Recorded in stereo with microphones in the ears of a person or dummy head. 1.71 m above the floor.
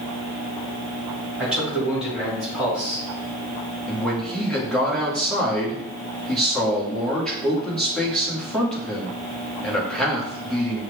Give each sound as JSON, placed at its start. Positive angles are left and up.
{"t": 1.4, "sound": "a man speaking", "side_deg": -5, "distance_m": 2.0}
{"t": 3.9, "sound": "a man speaking", "side_deg": 5, "distance_m": 1.6}